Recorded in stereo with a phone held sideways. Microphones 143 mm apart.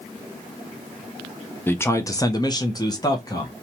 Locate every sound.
1.7 s a man speaking: 15° left (ahead or behind), 0.5 m; by 3.6 s 25° left (ahead or behind), 1.0 m